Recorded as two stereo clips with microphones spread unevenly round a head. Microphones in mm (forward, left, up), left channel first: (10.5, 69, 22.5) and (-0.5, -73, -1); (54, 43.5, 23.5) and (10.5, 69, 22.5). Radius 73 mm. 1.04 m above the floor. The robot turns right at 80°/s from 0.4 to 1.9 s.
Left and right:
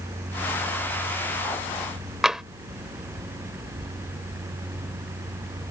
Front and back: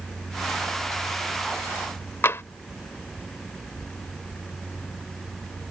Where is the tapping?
Straight ahead.